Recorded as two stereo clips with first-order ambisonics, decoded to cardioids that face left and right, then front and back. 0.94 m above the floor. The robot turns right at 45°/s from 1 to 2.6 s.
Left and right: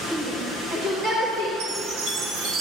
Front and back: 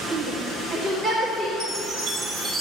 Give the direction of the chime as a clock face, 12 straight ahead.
4 o'clock.